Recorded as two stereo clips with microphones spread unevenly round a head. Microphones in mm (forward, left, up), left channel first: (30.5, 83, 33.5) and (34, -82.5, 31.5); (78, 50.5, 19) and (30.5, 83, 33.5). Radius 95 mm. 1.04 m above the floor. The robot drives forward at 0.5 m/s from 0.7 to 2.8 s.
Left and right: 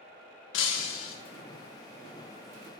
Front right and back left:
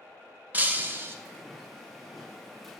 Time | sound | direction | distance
0.5 | breaking glass | 90° left | 0.8 m